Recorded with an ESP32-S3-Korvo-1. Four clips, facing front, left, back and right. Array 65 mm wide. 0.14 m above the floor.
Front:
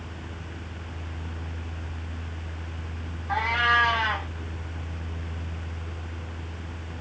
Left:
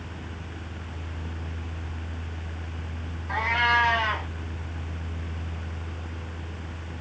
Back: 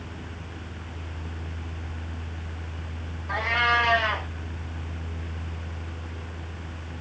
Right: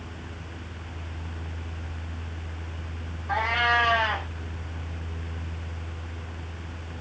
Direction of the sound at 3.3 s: 125° right.